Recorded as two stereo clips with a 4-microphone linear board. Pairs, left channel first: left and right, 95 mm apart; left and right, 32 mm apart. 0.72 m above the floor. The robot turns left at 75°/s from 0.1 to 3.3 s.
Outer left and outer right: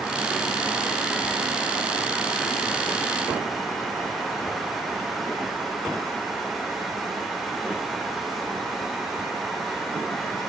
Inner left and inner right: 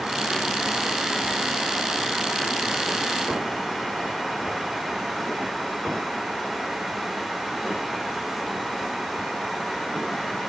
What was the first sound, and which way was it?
Only background noise.